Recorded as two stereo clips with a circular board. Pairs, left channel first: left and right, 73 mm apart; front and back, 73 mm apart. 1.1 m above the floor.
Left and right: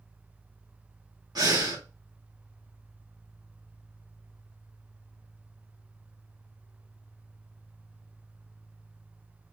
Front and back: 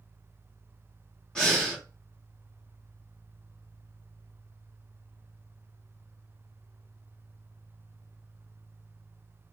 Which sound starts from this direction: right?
Breathing, at 1.4 s.